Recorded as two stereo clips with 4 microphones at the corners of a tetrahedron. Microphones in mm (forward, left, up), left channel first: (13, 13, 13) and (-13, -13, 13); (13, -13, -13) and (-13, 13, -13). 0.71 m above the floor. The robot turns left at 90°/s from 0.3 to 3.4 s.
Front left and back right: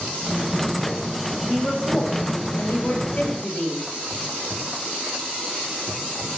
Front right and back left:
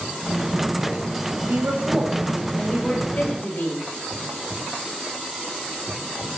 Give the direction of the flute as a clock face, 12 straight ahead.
No flute in this recording.